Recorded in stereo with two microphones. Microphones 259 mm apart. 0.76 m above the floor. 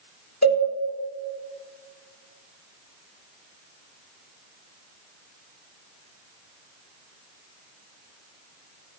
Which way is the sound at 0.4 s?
70° left (ahead or behind).